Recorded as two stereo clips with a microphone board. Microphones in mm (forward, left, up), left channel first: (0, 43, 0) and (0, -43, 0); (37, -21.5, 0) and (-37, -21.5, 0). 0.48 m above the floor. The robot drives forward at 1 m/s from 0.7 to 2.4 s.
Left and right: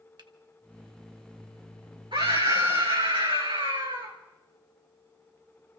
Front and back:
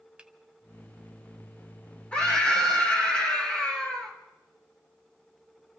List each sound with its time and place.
0.2 s a finger snap: 105° right, 1.2 m
2.1 s a scream: 75° right, 4.5 m